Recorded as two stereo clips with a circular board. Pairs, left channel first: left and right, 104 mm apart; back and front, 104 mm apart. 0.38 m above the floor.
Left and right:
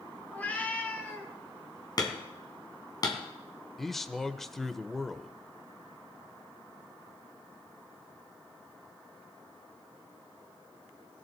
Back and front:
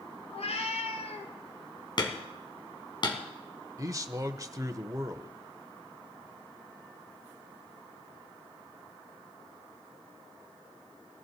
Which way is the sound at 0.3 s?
165° left.